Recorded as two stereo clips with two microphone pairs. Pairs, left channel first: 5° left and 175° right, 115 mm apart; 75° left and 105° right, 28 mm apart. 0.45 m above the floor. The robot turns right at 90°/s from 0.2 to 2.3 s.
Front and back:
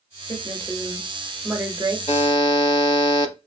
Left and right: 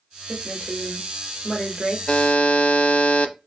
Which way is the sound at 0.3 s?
10° left.